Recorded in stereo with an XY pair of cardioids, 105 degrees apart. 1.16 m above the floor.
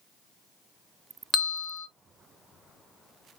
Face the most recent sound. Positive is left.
turn(degrees=25)